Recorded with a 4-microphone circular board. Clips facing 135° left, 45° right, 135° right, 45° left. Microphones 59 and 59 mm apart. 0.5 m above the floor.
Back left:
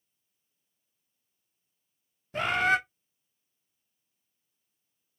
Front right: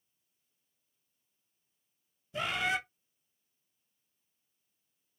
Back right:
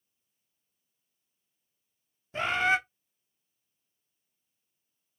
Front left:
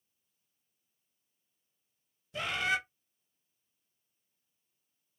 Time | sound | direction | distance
2.3 | a bird | 175° left | 0.7 m